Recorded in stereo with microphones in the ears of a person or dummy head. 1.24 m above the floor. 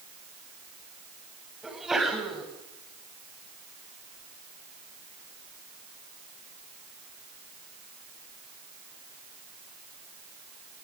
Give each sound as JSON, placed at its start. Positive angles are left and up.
{"t": 1.6, "sound": "a sneeze", "side_deg": 0, "distance_m": 8.5}